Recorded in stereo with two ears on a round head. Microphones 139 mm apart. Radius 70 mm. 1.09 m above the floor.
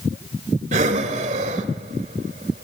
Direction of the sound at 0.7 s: 45° right (ahead or behind).